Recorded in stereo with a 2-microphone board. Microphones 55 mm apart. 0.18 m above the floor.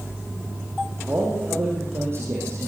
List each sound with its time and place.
1.1 s a man speaking: 40° right (ahead or behind), 8 m; by 2.7 s 55° right (ahead or behind), 8 m